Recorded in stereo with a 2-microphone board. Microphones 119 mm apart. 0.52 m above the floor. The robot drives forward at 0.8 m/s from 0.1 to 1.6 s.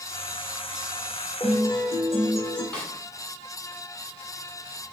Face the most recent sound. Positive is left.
turn(degrees=15)  # may be behind; listen again after turning